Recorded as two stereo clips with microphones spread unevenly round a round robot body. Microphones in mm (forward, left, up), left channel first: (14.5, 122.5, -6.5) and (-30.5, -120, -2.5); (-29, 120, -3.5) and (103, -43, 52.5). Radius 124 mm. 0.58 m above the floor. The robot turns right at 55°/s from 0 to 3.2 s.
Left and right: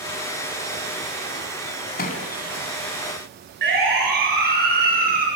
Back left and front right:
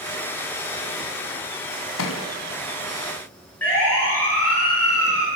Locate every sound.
2.0 s a thud: 130° left, 2.5 m; by 2.2 s 145° left, 2.5 m
3.6 s a siren: 150° right, 8 m; by 5.3 s 155° right, 8 m